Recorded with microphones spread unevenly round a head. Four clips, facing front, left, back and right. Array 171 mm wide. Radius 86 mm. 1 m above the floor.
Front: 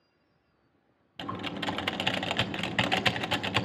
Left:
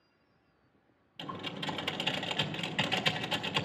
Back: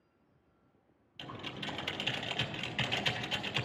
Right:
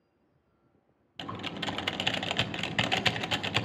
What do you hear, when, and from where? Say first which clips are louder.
1.2 s typing on a keyboard: right 3 dB, front 9 dB; 25° right, 0.6 m